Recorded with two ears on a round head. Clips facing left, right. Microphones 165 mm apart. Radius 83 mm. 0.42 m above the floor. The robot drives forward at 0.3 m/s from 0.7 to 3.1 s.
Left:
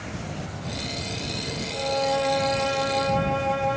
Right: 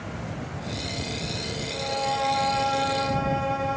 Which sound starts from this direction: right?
A violin, at 1.7 s.